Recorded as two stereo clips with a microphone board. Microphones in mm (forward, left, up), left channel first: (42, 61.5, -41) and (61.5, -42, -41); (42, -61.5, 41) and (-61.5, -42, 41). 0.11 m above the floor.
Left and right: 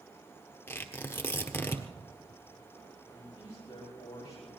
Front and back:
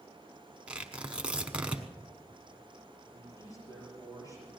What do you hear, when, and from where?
0.7 s tearing paper: 110° left, 1.4 m
3.1 s a man speaking: 45° left, 7.5 m